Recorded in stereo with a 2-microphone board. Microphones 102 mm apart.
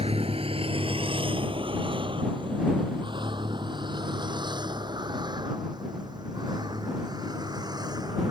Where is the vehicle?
70° right (ahead or behind); by 8.3 s 40° right (ahead or behind).